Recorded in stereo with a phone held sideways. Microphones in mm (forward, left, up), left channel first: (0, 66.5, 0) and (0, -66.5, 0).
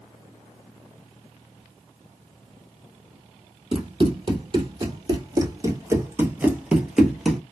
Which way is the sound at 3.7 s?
40° right (ahead or behind).